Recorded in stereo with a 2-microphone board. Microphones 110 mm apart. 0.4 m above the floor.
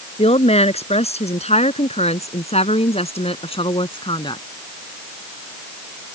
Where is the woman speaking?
70° left (ahead or behind); by 4.4 s 45° left (ahead or behind).